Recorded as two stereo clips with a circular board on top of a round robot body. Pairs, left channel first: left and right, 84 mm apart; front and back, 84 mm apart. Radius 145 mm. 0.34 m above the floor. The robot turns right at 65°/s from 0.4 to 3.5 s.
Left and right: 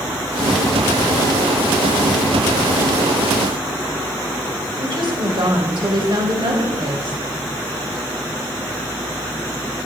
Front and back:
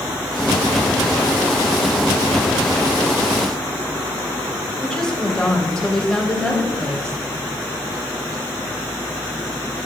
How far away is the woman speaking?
About 3 m.